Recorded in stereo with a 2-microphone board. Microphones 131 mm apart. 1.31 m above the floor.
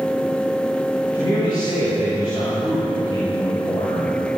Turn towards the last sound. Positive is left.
turn(degrees=35)  # may be behind; listen again after turning